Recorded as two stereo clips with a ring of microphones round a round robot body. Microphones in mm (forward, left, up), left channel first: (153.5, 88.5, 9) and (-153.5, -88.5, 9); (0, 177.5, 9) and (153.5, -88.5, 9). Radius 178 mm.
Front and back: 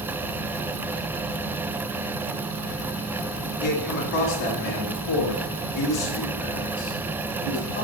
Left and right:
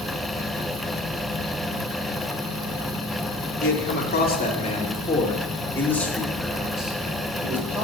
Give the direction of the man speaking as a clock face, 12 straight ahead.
10 o'clock.